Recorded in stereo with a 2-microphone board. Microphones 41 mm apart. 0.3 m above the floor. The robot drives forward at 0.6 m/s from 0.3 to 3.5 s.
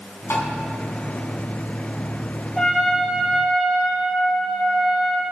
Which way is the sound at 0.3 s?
60° left (ahead or behind).